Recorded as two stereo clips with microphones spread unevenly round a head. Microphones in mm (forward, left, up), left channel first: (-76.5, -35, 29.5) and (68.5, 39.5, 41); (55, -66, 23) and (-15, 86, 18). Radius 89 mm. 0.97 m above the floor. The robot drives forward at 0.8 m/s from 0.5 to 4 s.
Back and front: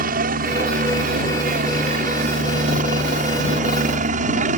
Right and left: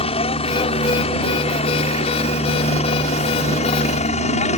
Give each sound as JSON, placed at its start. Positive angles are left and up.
{"t": 0.0, "sound": "a helicopter", "azimuth_deg": -10}